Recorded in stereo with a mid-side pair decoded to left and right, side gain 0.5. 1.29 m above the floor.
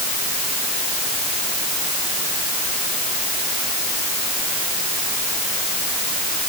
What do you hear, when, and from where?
Only background noise.